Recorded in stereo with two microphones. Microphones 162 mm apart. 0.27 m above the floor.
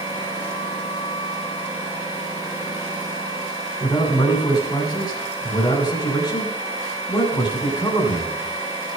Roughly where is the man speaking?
Left.